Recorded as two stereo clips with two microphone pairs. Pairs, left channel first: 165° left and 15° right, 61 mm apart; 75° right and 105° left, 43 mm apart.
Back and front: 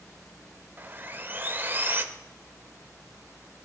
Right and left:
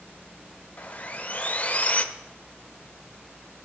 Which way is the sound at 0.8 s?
60° right.